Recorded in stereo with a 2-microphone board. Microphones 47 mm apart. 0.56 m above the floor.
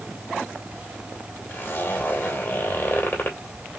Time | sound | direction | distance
1.5 | a zipper | 45° left (ahead or behind) | 2.5 m